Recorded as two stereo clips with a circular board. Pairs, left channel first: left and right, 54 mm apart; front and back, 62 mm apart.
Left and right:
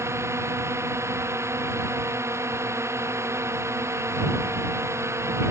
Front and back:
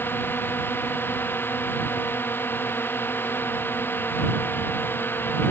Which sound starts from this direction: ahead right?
A drone, at 0.0 s.